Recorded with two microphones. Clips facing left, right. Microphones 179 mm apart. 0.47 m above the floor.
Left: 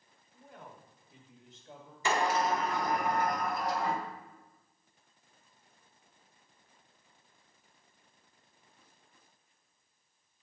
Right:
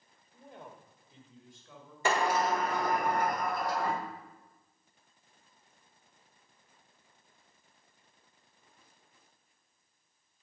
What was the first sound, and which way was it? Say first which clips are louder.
A man speaking: right 2 dB; 40° right (ahead or behind).